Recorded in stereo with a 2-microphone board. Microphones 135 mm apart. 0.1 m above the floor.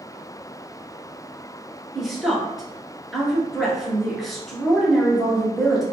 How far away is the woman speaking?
About 1.2 m.